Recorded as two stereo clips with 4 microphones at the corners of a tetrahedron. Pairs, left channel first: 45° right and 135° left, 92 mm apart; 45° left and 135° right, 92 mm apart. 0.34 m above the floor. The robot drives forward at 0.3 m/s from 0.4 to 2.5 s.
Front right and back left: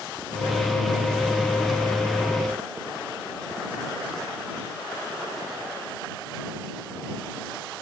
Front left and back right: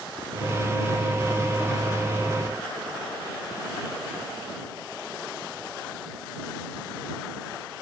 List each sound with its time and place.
Only background noise.